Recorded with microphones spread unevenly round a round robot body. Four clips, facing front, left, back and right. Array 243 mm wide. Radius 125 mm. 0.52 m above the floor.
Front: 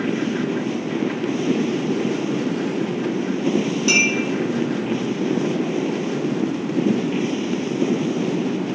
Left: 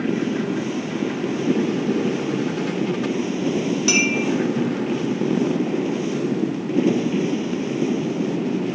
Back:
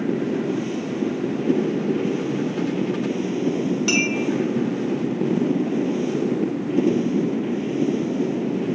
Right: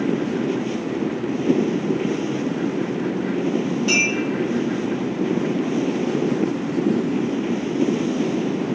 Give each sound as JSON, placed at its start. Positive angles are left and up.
{"t": 3.9, "sound": "a clink", "azimuth_deg": 120, "distance_m": 0.9}